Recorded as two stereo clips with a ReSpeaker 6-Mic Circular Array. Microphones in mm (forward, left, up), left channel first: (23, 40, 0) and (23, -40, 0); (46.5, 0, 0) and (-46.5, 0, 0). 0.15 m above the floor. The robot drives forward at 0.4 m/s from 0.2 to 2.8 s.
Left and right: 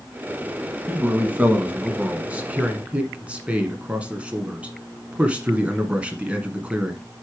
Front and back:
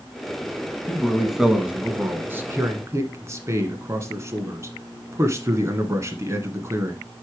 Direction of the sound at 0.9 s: 65° right.